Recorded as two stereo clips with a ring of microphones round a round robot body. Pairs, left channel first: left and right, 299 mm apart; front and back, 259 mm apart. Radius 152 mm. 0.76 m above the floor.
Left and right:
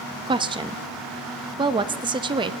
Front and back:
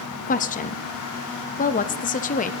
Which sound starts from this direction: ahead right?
A woman speaking, at 0.3 s.